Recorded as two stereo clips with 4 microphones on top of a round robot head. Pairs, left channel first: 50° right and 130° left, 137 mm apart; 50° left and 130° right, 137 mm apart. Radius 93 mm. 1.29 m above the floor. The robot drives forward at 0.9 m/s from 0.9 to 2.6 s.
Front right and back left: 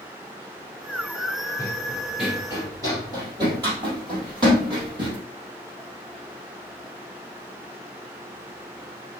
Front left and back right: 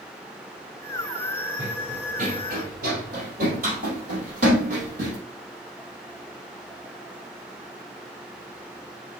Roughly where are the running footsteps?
Right.